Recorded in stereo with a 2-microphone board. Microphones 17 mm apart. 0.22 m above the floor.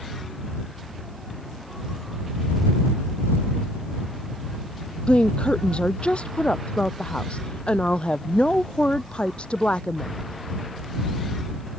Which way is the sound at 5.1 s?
75° left (ahead or behind).